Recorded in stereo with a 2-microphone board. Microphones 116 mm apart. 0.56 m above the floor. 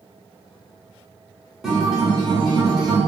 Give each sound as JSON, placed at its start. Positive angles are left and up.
{"t": 1.6, "sound": "a guitar", "side_deg": 0, "distance_m": 0.8}